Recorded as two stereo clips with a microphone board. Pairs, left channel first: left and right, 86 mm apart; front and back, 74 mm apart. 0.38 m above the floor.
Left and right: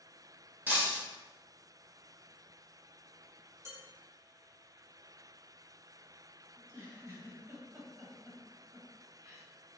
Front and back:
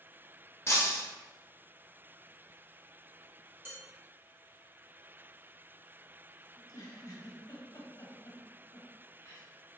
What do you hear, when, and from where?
0.7 s breaking glass: 30° right, 0.8 m
3.6 s dishes clattering: 135° right, 1.0 m
6.5 s a giggle: 40° right, 1.0 m